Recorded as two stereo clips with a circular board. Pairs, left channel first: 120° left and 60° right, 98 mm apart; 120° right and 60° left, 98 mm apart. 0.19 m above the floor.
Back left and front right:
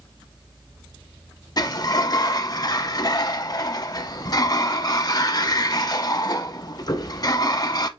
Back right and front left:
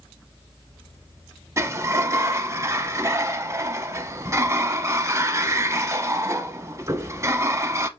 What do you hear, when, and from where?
1.6 s a sliding door: 105° left, 0.5 m